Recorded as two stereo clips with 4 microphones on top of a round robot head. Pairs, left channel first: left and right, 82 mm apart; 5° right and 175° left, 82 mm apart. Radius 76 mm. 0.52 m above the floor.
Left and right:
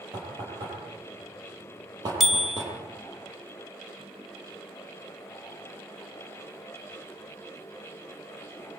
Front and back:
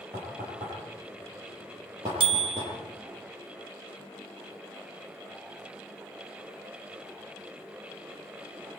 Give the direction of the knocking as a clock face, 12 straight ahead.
4 o'clock.